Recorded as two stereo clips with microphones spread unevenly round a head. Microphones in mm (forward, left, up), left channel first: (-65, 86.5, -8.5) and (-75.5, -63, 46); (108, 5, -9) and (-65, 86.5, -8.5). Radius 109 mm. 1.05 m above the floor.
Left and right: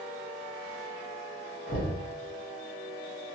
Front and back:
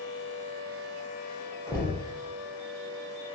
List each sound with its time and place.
1.7 s knocking: 50° left, 0.8 m